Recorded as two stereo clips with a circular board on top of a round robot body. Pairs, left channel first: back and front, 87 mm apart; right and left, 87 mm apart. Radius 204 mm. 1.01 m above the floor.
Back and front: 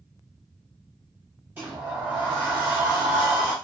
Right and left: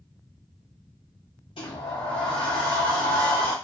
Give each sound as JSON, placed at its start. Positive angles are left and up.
{"t": 1.6, "sound": "a sliding door", "azimuth_deg": -70, "distance_m": 0.6}